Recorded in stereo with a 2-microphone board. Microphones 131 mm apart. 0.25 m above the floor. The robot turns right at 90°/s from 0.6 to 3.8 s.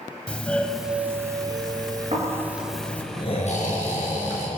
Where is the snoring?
60° right, 5 m; by 4.5 s 95° left, 5 m.